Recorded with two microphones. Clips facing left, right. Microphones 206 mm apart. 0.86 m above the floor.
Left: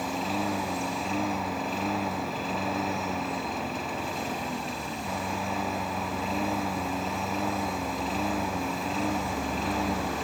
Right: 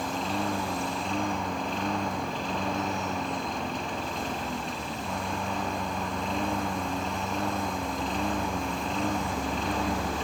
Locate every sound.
0.0 s a lawn mower: 5° left (ahead or behind)